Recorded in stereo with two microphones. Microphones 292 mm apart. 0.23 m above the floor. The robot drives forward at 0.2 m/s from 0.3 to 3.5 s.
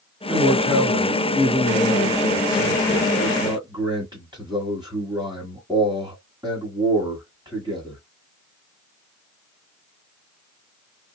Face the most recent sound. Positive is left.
turn(degrees=-15)  # may be behind; listen again after turning